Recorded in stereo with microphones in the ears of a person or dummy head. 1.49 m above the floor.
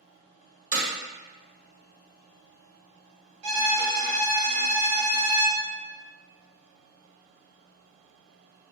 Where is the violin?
85° right, 1.2 m.